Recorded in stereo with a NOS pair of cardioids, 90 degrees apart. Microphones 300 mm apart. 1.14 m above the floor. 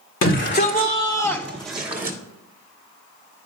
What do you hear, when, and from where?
0.2 s a shout: 45° left, 1.4 m; by 2.2 s 30° right, 1.3 m